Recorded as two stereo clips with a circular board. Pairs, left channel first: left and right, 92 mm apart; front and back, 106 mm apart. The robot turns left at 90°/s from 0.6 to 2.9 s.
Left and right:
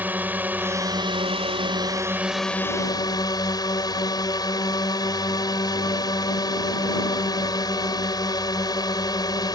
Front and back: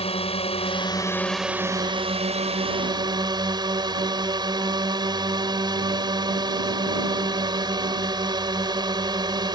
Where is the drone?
20° right; by 9.6 s 135° left.